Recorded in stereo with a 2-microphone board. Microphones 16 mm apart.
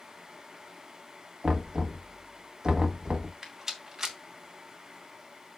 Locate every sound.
1.4 s knocking: 45° right (ahead or behind), 1.7 m
3.4 s a rattle: 30° right (ahead or behind), 2.0 m